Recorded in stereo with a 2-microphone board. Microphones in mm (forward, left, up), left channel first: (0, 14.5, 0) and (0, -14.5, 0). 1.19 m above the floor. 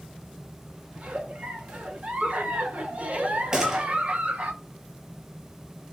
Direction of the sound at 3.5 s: 20° right (ahead or behind).